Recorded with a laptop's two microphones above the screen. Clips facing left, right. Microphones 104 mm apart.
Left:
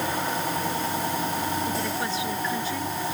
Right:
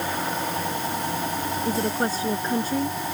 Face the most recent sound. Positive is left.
turn(degrees=-40)  # may be behind; listen again after turning